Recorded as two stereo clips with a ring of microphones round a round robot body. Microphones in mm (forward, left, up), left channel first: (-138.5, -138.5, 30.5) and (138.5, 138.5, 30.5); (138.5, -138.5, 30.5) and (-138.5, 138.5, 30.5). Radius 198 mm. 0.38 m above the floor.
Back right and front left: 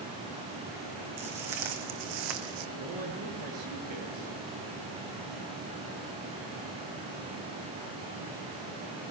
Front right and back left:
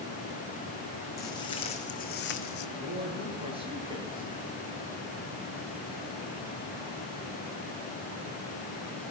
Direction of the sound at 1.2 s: 35° left.